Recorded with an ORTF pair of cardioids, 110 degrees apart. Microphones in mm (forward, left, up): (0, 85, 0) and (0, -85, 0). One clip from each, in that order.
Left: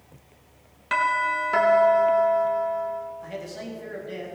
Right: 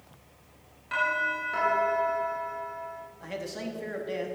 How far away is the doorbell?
About 3.5 m.